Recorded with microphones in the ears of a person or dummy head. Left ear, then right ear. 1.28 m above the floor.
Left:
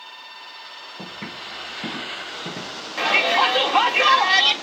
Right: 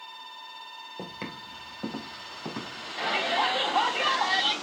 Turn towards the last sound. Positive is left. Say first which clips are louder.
# left 8 dB
turn(degrees=70)  # may be behind; listen again after turning